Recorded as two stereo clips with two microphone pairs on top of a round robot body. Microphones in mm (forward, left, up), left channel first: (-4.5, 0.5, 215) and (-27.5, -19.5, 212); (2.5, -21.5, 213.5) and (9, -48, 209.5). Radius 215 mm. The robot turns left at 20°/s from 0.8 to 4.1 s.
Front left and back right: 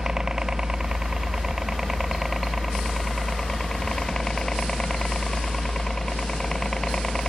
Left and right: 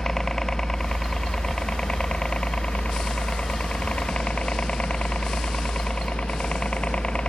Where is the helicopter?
175° left; by 7.3 s 110° left.